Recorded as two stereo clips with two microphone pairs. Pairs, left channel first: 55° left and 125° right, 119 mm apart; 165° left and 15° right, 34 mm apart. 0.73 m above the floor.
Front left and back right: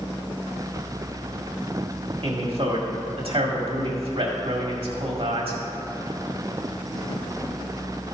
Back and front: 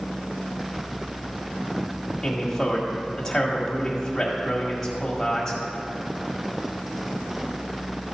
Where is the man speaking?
120° right, 1.7 m.